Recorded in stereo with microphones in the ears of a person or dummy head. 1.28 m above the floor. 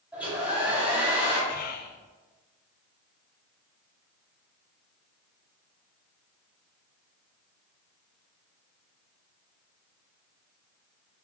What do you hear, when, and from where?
0.1 s a hair dryer: 10° right (ahead or behind), 3.5 m
1.5 s whispering: 45° left (ahead or behind), 0.7 m